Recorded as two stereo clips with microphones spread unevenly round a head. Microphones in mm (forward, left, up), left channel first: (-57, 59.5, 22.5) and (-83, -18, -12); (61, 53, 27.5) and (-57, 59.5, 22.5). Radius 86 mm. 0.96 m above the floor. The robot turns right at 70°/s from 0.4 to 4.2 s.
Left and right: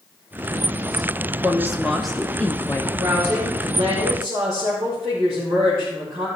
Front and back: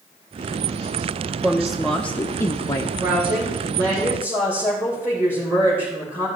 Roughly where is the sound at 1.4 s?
Behind right.